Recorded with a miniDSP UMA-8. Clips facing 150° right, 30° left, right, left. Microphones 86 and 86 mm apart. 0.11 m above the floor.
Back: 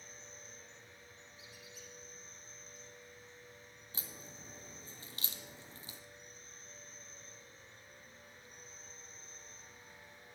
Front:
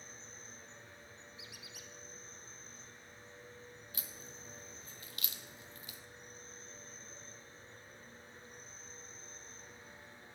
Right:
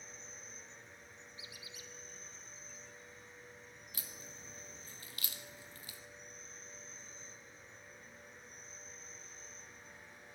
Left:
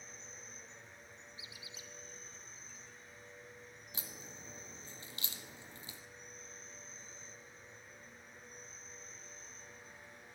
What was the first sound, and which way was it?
An insect, straight ahead.